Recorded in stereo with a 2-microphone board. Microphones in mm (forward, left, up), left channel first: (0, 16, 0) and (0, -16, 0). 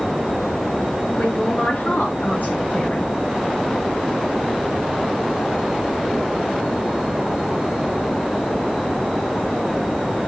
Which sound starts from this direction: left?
A man speaking, at 1.2 s.